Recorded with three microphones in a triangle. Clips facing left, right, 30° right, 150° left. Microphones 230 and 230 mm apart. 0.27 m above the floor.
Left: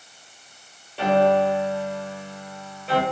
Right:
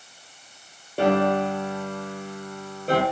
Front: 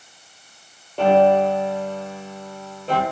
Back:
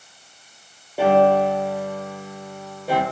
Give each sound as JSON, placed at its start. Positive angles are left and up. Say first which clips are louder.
{"t": 1.0, "sound": "a piano", "louder": "left 2 dB, front 1 dB", "azimuth_deg": -130, "distance_m": 7.0}